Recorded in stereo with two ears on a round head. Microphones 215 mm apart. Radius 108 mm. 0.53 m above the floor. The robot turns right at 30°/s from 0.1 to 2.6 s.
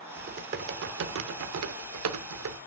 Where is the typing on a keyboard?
145° right, 0.6 m; by 2.6 s 75° right, 0.6 m.